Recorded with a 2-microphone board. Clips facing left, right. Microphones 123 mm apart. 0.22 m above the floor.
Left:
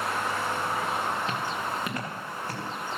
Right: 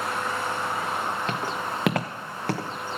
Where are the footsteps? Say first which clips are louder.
Right 2 dB; 60° right (ahead or behind), 1.6 m; by 2.7 s 80° right, 1.9 m.